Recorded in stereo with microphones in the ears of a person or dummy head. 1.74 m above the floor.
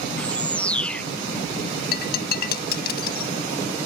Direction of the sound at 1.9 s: 60° left (ahead or behind).